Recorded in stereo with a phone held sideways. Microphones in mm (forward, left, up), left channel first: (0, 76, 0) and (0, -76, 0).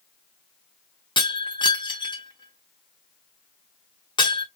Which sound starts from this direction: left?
Breaking glass, at 1.2 s.